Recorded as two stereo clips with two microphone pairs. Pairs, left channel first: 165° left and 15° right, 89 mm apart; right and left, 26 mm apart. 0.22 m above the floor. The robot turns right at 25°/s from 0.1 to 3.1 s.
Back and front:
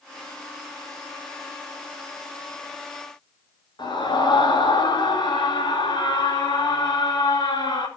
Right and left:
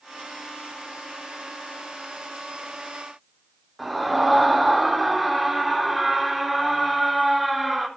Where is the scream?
175° left, 4 m.